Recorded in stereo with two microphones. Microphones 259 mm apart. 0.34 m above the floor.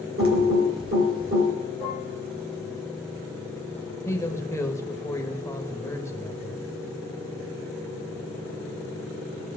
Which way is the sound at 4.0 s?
10° left (ahead or behind).